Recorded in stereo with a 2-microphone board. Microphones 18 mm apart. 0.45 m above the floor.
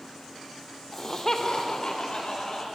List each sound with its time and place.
0.9 s laughter: 20° left (ahead or behind), 0.8 m; by 2.6 s 60° left (ahead or behind), 1.6 m